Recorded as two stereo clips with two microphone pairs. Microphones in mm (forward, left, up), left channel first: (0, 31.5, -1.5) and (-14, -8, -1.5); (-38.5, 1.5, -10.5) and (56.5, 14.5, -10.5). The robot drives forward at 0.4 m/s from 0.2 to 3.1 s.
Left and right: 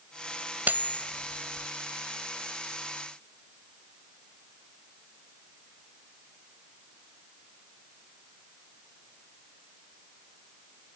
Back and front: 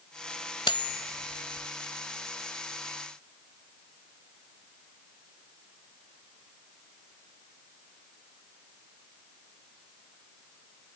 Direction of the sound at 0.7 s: 150° right.